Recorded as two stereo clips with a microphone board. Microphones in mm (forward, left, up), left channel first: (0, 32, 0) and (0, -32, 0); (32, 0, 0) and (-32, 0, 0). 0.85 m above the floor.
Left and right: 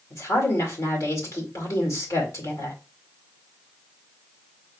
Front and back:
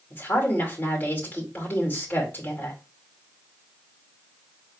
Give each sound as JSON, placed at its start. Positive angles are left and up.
{"t": 0.1, "sound": "a woman speaking", "azimuth_deg": 55, "distance_m": 2.0}